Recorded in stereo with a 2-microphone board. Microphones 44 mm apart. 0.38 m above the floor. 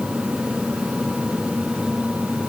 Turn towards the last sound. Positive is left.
No sound to turn to.